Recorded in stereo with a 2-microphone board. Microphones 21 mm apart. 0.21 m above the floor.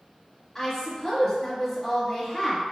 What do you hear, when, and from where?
0.6 s a woman speaking: 5° left (ahead or behind), 1.2 m